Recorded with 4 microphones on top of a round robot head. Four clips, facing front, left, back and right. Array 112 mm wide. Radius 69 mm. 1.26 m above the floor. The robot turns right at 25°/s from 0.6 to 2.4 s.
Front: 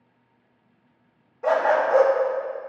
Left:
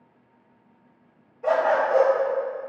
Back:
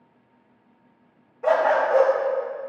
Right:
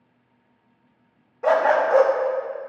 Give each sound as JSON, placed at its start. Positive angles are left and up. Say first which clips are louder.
{"t": 1.4, "sound": "a dog barking", "louder": "right 3 dB, back 1 dB", "azimuth_deg": -100, "distance_m": 0.7}